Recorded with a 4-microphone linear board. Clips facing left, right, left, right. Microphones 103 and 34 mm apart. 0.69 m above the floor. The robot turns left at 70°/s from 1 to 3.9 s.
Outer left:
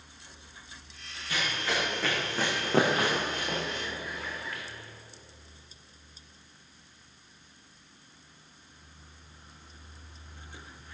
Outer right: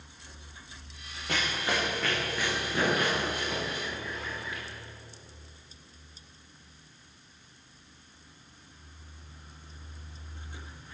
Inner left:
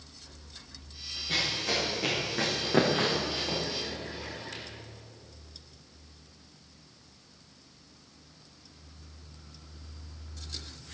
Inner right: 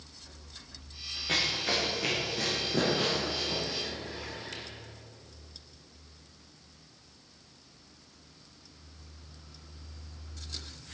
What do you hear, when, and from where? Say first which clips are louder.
1.3 s running footsteps: outer right 1 dB, inner right 1 dB; 60° right (ahead or behind), 4 m; by 4.6 s 5° right (ahead or behind), 4.5 m